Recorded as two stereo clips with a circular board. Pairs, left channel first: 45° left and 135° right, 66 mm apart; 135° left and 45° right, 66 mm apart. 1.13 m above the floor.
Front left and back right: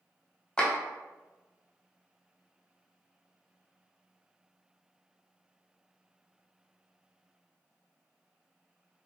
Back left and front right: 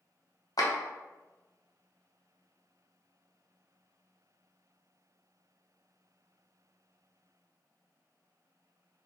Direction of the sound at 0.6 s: 120° left.